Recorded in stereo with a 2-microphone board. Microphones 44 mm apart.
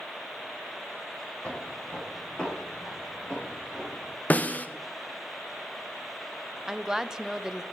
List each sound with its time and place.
1.4 s footsteps: 30° left (ahead or behind), 6 m; by 4.1 s 10° left (ahead or behind), 7.5 m
4.3 s a snare drum: 35° left (ahead or behind), 0.9 m
6.7 s a woman speaking: 10° right (ahead or behind), 0.8 m